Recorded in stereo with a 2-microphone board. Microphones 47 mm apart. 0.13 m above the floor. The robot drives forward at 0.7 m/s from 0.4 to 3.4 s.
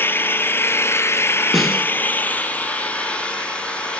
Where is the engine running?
50° left (ahead or behind), 0.9 m; by 4.0 s 25° left (ahead or behind), 1.8 m.